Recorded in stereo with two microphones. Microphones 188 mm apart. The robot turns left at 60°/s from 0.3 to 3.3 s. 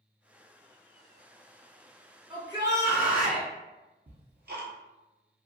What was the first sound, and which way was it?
A shout, 25° right (ahead or behind).